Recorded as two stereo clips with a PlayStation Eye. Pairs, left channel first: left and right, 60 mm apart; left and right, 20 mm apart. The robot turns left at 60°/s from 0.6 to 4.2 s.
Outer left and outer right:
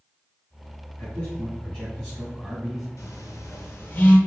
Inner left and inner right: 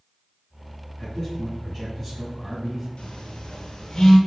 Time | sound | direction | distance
1.0 | a man speaking | 20° left (ahead or behind) | 1.4 m
3.0 | a phone buzzing | 85° left | 0.9 m